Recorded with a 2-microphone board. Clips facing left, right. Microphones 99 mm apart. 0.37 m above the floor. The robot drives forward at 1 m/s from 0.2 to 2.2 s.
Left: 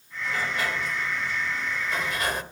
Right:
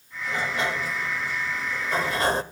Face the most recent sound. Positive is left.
turn(degrees=-30)  # may be behind; listen again after turning